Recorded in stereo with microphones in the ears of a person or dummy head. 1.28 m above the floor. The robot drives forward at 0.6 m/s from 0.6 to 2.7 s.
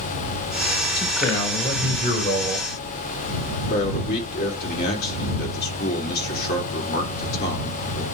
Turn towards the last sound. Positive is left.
turn(degrees=50)  # may be behind; listen again after turning